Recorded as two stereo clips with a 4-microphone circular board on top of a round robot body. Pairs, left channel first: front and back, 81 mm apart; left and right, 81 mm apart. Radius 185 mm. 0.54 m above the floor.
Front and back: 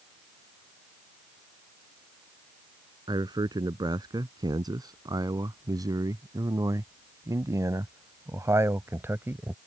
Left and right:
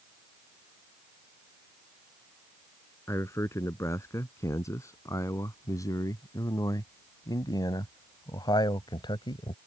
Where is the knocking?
I don't hear knocking.